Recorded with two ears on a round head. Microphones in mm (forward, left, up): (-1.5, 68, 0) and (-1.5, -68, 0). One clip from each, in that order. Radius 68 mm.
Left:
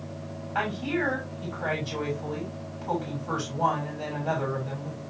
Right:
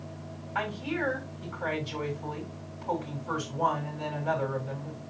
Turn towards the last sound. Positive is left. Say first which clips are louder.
# left 3 dB
turn(degrees=5)  # may be behind; listen again after turning